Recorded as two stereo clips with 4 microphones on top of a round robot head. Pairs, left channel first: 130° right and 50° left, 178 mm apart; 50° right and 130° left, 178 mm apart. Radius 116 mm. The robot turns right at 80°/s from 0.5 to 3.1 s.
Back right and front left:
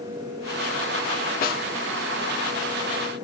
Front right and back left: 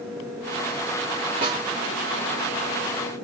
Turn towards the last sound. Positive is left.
turn(degrees=-35)